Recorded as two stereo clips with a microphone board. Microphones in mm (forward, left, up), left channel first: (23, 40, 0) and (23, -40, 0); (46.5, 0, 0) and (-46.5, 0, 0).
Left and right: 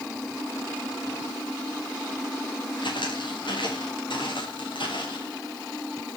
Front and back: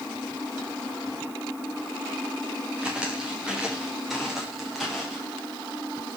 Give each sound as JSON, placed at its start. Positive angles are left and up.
{"t": 2.8, "sound": "footsteps", "azimuth_deg": 105, "distance_m": 5.5}